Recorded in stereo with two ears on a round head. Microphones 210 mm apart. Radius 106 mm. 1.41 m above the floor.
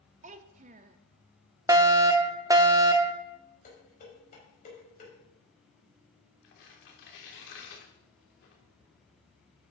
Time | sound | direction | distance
0.2 | a child speaking | 30° right (ahead or behind) | 0.5 m
1.7 | a fire alarm | 15° right (ahead or behind) | 0.8 m
3.6 | dishes clattering | 35° left (ahead or behind) | 4.5 m
6.4 | tearing paper | 55° left (ahead or behind) | 2.5 m